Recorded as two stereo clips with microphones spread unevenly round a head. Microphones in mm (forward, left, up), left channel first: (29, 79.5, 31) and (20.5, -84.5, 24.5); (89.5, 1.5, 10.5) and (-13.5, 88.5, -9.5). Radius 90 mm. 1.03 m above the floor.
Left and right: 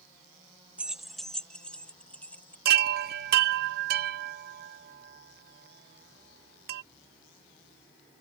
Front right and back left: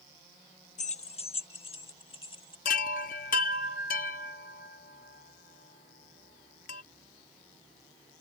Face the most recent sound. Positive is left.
turn(degrees=-70)